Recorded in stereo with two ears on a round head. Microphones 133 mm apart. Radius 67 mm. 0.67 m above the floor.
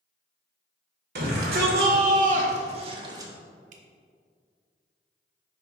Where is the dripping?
55° right (ahead or behind), 0.9 m.